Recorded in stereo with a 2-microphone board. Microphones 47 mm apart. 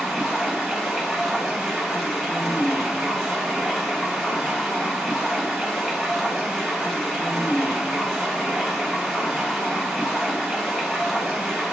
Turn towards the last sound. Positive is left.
turn(degrees=0)  # may be behind; listen again after turning